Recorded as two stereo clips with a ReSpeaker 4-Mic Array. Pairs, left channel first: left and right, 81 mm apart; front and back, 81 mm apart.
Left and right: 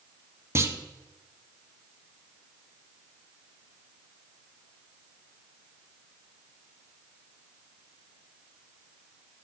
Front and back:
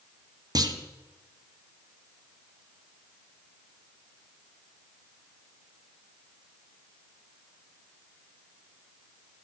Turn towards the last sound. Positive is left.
turn(degrees=-145)